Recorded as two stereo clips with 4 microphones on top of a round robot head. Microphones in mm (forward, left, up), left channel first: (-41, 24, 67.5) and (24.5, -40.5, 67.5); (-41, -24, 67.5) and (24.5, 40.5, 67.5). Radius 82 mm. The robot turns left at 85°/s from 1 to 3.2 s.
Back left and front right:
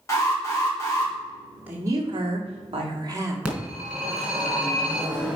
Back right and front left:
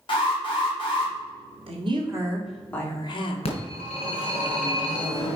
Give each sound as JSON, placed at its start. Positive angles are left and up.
{"t": 0.1, "sound": "an alarm", "azimuth_deg": -165, "distance_m": 3.0}
{"t": 1.7, "sound": "a woman speaking", "azimuth_deg": 30, "distance_m": 1.9}
{"t": 3.5, "sound": "a phone ringing", "azimuth_deg": -120, "distance_m": 3.0}